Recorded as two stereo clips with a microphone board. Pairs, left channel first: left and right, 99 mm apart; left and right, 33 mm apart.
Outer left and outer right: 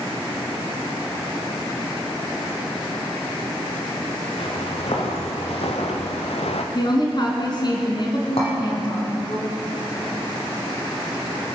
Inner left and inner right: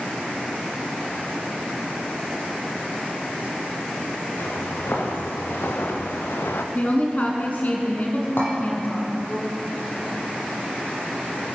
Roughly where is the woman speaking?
Left.